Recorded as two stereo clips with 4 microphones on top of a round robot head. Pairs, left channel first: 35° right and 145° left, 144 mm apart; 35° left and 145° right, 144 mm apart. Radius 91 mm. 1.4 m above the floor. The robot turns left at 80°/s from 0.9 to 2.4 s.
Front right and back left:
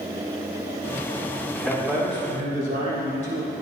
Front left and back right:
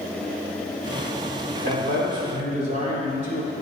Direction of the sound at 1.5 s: 115° right.